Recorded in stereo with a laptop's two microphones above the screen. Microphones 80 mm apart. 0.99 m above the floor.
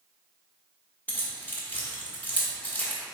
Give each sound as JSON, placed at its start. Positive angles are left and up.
{"t": 1.1, "sound": "keys jangling", "side_deg": 25, "distance_m": 1.2}